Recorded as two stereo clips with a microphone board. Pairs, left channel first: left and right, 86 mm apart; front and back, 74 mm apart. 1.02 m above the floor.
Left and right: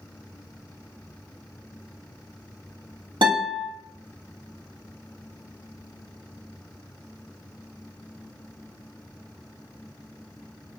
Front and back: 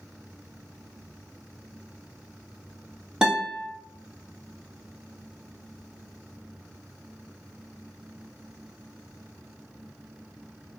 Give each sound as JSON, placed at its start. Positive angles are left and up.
{"t": 3.2, "sound": "a guitar", "azimuth_deg": -100, "distance_m": 1.7}